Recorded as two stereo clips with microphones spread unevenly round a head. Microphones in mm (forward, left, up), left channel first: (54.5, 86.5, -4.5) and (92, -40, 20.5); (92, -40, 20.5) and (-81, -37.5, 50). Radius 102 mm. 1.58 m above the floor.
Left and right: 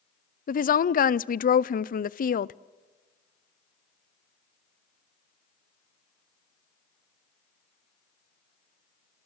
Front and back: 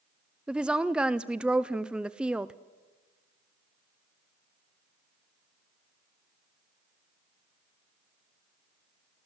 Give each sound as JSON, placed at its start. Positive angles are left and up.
{"t": 0.5, "sound": "a woman speaking", "azimuth_deg": 95, "distance_m": 0.7}